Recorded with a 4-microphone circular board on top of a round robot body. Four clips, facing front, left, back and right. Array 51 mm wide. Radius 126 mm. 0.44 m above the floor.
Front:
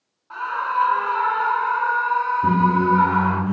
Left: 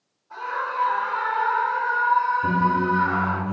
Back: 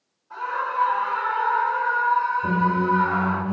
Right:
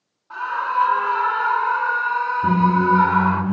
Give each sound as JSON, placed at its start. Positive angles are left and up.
{"t": 0.3, "sound": "a scream", "azimuth_deg": -40, "distance_m": 8.5}
{"t": 2.4, "sound": "a squeak", "azimuth_deg": -10, "distance_m": 2.0}